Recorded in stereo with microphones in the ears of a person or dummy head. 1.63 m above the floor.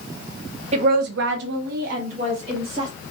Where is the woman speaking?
35° right (ahead or behind), 0.6 m.